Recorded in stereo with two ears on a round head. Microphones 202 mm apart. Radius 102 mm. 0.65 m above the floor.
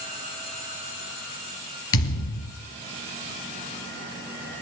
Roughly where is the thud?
Left.